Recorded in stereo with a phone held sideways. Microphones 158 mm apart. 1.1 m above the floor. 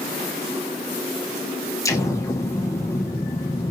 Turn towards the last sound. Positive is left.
turn(degrees=20)  # may be behind; listen again after turning